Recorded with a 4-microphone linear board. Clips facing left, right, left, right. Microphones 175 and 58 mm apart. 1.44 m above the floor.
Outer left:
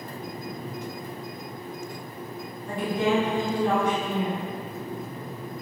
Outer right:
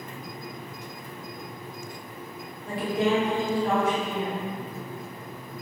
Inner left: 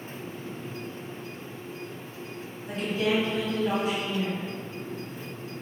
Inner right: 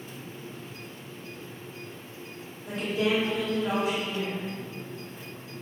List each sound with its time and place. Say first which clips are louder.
2.7 s a woman speaking: even, even; 75° right (ahead or behind), 1.6 m